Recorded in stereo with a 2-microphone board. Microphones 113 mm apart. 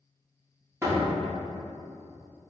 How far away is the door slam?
About 1.3 m.